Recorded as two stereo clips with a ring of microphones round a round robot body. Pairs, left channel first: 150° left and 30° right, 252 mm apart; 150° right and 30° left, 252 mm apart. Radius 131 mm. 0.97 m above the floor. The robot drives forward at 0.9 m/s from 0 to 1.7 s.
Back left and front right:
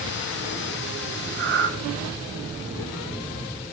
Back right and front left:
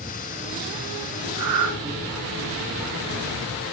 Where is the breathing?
5° left, 2.5 m.